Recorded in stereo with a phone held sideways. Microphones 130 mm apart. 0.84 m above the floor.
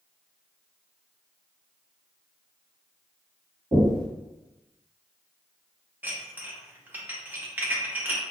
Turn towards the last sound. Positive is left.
turn(degrees=-15)  # may be behind; listen again after turning